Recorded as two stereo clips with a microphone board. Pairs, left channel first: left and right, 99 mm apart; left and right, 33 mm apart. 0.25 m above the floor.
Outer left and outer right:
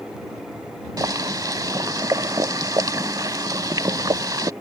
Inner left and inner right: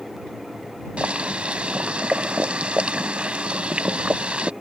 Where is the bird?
No bird in this recording.